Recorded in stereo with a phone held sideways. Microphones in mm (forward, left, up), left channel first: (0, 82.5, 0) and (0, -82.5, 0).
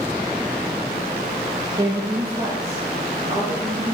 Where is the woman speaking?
20° right (ahead or behind), 0.6 m; by 3.9 s 35° right (ahead or behind), 2 m.